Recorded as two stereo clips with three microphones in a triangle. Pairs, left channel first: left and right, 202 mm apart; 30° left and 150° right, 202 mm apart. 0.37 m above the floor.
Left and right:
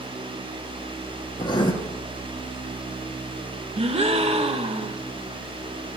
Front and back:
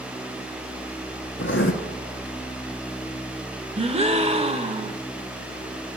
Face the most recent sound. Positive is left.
turn(degrees=-120)